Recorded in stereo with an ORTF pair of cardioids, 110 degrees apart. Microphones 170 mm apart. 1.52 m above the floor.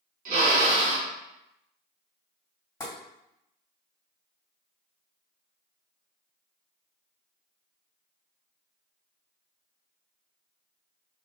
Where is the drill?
50° right, 1.3 m.